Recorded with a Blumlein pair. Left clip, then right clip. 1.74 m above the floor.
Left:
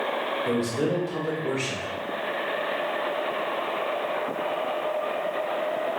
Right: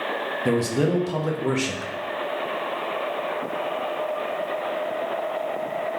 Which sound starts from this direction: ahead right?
A man speaking, at 0.5 s.